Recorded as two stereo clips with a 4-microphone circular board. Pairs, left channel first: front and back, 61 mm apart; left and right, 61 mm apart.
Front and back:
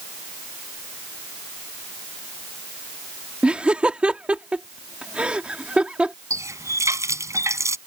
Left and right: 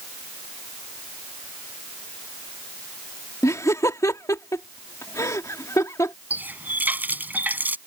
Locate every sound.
3.4 s laughter: 110° left
6.3 s a running tap: 150° right